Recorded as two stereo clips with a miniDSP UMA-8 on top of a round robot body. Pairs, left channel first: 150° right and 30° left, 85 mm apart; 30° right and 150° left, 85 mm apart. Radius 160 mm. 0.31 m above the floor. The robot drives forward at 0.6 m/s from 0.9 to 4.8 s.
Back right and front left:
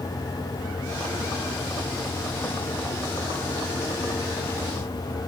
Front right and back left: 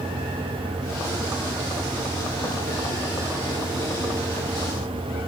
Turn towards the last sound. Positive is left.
No sound to turn to.